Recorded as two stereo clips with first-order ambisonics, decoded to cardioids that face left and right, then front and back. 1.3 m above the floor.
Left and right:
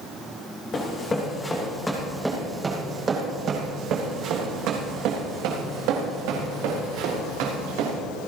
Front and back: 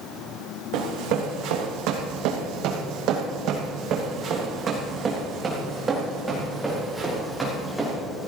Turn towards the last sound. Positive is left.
turn(degrees=-95)